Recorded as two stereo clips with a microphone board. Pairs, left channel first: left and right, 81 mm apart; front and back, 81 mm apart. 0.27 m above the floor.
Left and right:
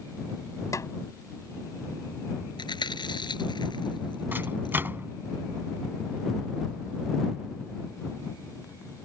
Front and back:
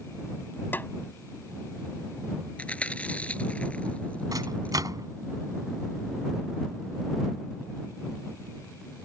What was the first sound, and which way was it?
A snare drum, 60° left.